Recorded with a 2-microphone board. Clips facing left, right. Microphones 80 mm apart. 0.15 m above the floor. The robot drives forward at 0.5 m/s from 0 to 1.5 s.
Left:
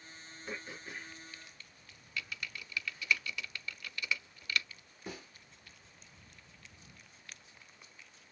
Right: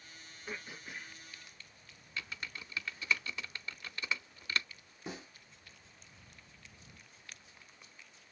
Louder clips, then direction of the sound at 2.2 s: Left 1 dB; 30° right (ahead or behind).